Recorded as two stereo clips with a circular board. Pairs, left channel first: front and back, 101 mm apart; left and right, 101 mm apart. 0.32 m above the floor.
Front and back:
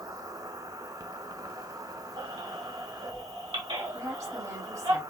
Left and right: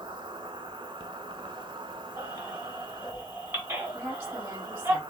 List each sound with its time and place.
0.0 s an insect: 130° right, 0.8 m
2.2 s a baby crying: 155° right, 1.9 m
3.9 s a woman speaking: 145° right, 2 m